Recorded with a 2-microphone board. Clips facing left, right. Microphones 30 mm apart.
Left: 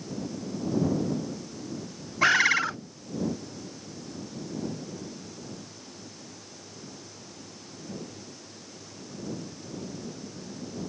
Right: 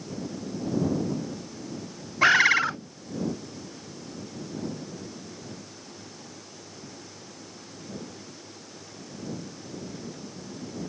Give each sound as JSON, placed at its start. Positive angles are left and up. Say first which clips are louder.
{"t": 2.2, "sound": "a bird", "louder": "right 3 dB", "side_deg": -10}